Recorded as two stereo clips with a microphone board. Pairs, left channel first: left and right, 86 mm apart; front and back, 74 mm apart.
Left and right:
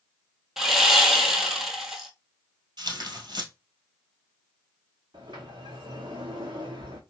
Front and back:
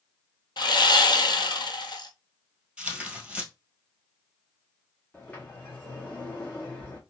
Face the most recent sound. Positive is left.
turn(degrees=-65)